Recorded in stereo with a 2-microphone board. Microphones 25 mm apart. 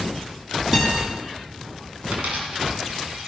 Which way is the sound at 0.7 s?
10° right (ahead or behind).